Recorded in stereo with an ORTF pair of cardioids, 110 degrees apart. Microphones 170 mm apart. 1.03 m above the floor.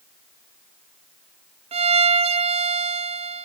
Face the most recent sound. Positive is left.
turn(degrees=-35)